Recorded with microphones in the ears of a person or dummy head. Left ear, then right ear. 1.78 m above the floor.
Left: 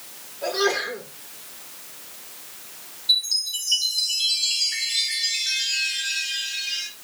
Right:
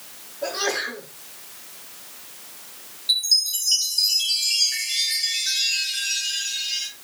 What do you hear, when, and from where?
0.4 s a sneeze: 5° left (ahead or behind), 5 m
3.1 s a chime: centre (ahead or behind), 4 m